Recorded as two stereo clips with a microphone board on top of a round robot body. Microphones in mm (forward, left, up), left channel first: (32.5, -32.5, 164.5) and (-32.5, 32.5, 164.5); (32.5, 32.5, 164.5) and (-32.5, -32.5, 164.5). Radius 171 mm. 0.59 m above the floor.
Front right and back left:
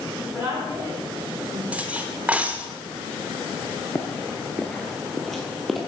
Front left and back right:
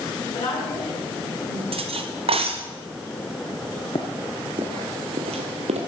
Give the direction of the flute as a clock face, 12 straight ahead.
I don't hear a flute.